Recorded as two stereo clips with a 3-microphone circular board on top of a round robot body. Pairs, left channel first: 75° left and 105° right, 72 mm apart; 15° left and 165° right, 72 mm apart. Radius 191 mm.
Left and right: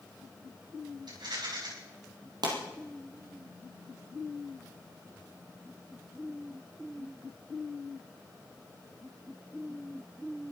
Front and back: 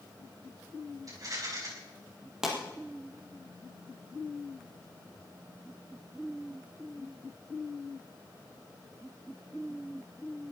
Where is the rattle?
125° right, 5.5 m.